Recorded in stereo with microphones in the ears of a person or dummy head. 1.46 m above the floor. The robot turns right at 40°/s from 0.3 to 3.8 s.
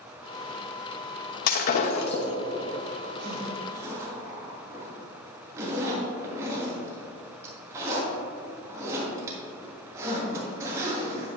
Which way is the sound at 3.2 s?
40° right (ahead or behind).